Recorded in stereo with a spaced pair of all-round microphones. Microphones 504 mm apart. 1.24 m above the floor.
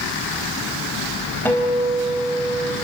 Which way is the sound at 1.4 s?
5° left (ahead or behind).